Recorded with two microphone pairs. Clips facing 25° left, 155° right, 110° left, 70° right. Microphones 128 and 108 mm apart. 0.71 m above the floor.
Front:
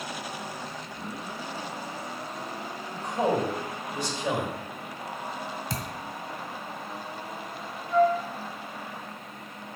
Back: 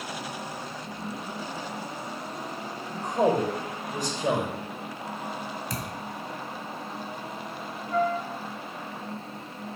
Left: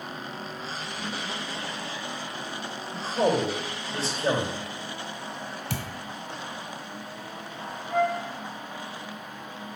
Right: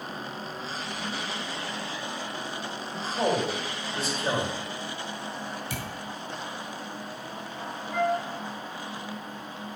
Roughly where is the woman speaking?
Behind.